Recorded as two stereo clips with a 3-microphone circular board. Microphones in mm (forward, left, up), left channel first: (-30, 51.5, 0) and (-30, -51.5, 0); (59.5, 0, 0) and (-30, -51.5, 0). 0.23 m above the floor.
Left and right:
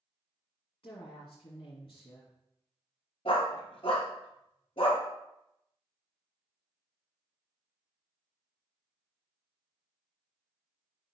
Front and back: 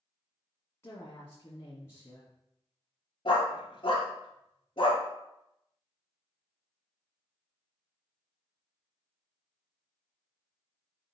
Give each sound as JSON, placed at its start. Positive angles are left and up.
{"t": 0.8, "sound": "a woman speaking", "azimuth_deg": 90, "distance_m": 1.8}
{"t": 3.2, "sound": "a dog barking", "azimuth_deg": 70, "distance_m": 1.8}